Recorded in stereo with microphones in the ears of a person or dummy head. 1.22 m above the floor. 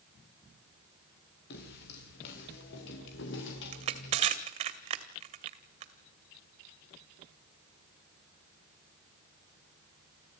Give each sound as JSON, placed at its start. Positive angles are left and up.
{"t": 1.5, "sound": "footsteps", "side_deg": 60, "distance_m": 6.5}
{"t": 3.7, "sound": "crushing", "side_deg": -35, "distance_m": 2.0}